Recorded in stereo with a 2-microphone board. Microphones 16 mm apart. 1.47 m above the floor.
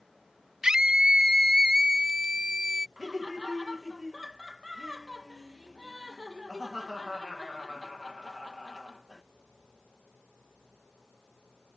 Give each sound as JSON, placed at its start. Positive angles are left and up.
{"t": 0.6, "sound": "a scream", "side_deg": -45}
{"t": 3.0, "sound": "laughter", "side_deg": -35}